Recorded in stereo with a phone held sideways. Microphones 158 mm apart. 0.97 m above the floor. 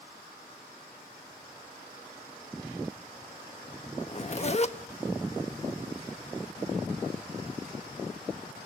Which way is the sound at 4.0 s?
45° left (ahead or behind).